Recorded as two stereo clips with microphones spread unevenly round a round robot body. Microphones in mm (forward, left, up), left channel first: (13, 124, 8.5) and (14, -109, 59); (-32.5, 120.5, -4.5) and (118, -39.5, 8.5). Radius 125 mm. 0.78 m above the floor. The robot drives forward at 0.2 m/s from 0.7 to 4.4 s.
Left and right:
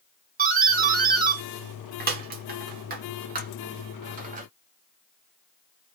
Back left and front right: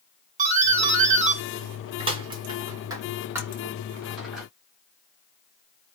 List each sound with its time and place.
0.4 s a doorbell: 50° right, 1.0 m; by 4.5 s 140° right, 1.0 m